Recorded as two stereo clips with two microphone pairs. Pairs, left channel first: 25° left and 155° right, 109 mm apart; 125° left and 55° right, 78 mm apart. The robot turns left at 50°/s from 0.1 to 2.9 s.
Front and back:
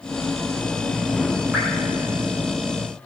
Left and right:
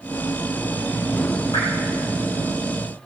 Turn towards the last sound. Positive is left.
turn(degrees=65)